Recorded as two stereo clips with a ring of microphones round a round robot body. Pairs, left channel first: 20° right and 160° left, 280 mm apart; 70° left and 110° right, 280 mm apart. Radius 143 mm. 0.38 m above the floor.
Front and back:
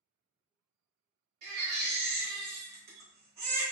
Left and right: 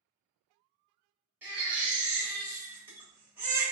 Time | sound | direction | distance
1.4 | a baby crying | 165° left | 1.1 m